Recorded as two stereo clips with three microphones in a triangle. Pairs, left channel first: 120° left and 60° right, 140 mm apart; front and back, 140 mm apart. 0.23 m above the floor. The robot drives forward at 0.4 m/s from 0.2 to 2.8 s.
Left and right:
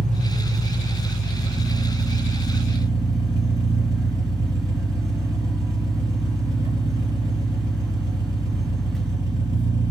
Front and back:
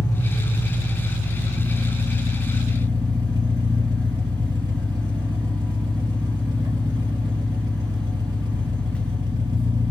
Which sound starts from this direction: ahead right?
An engine running, at 0.0 s.